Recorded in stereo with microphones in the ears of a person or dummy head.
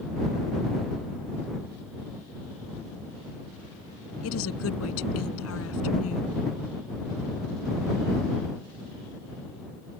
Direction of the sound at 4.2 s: 80° left.